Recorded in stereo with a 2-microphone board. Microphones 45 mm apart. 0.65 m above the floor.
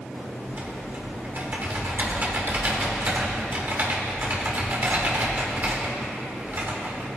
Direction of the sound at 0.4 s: 50° right (ahead or behind).